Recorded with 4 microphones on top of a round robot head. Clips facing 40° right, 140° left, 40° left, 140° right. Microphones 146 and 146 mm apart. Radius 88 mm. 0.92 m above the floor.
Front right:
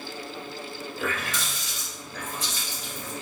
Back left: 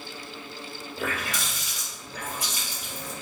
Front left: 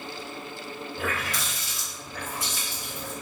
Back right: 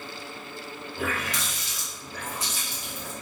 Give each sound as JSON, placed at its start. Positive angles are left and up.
{"t": 1.0, "sound": "a running tap", "azimuth_deg": -145, "distance_m": 1.4}